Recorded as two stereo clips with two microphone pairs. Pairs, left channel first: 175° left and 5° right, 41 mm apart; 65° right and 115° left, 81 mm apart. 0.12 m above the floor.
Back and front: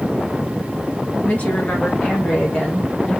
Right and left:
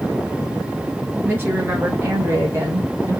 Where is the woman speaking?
165° left, 2 m; by 3.2 s 105° left, 2 m.